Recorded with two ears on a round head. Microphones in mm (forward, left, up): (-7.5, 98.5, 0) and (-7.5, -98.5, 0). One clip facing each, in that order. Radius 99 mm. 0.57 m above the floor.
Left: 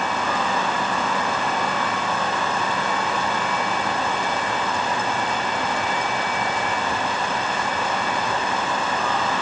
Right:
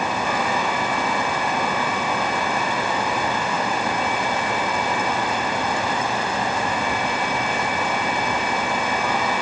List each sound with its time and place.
Only background noise.